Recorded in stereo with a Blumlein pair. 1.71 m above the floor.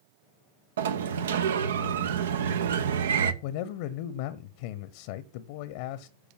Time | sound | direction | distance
0.8 | a sliding door | 65° right | 0.9 m
3.4 | a man speaking | 50° left | 0.9 m